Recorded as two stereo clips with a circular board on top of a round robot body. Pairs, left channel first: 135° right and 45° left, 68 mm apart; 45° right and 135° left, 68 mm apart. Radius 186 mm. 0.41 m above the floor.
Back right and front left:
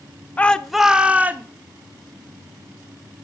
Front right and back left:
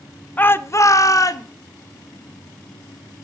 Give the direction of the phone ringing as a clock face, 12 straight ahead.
I don't hear a phone ringing.